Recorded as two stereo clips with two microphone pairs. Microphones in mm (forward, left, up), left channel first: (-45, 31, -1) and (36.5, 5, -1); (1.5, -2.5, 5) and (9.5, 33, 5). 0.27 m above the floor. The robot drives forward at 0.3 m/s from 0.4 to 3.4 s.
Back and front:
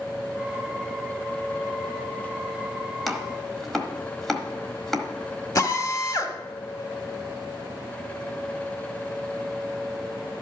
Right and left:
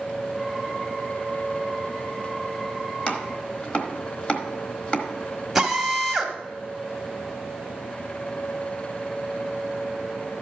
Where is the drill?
160° left, 1.2 m.